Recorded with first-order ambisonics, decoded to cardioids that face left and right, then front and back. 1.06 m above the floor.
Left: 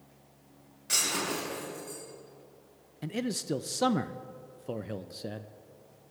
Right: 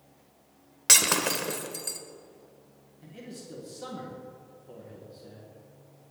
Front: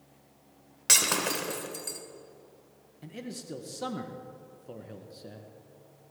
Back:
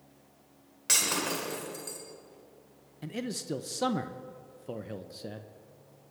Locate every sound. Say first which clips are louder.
0.9 s breaking glass: right 7 dB, front 3 dB; 70° right, 1.7 m
3.0 s a man speaking: left 11 dB, back 5 dB; 115° left, 0.6 m